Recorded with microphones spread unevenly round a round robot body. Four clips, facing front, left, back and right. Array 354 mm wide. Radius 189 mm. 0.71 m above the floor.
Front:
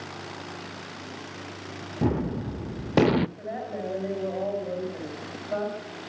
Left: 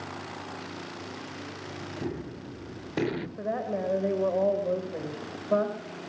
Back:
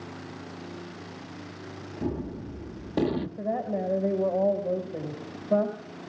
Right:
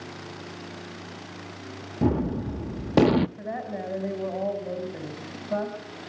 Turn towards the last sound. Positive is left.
turn(degrees=170)